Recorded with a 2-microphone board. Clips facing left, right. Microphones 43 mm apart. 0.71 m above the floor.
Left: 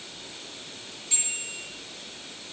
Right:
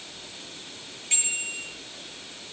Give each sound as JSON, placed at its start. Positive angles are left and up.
{"t": 1.1, "sound": "a bicycle bell", "side_deg": -65, "distance_m": 9.5}